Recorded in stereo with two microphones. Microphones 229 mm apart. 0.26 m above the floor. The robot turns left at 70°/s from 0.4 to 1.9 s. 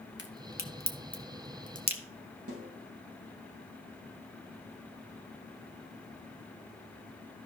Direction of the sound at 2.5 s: 85° right.